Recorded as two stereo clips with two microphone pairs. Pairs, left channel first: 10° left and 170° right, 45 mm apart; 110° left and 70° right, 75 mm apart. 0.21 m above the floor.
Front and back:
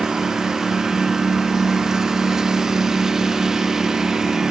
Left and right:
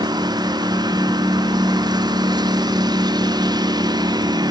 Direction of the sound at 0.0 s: 95° right.